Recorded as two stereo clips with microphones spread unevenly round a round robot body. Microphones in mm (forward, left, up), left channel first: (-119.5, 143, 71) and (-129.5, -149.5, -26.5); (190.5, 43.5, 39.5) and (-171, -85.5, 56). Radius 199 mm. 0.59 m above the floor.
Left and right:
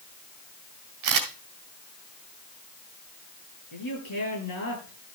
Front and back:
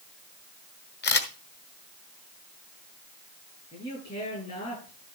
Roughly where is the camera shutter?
Ahead right.